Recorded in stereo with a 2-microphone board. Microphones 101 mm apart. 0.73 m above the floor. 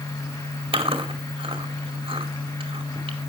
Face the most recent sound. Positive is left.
turn(degrees=-65)  # may be behind; listen again after turning